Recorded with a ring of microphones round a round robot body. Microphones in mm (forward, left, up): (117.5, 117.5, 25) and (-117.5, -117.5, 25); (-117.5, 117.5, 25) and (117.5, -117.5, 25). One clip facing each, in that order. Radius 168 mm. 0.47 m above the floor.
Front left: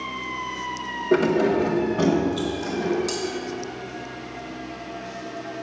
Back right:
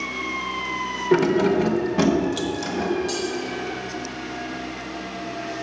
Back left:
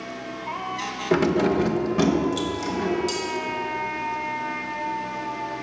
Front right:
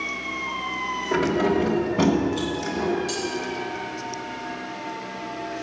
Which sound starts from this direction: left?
Cutlery clinking, at 3.1 s.